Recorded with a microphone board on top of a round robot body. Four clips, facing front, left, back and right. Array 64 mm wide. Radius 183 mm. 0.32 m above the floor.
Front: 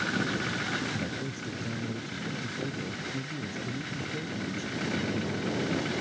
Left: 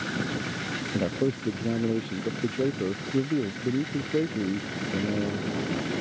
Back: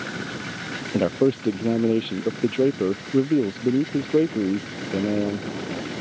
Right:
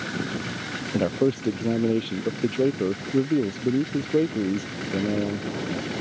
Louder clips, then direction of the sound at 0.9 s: Right 5 dB, back 14 dB; 165° right.